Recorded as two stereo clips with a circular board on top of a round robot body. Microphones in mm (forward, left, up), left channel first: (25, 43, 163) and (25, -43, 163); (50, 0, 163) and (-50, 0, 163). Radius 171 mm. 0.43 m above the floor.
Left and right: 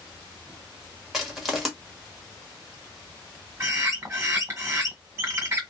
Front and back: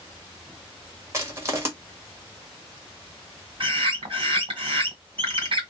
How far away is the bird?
About 1.6 m.